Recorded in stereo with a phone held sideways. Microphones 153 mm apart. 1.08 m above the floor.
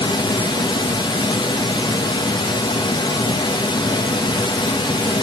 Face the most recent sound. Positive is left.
turn(degrees=30)  # may be behind; listen again after turning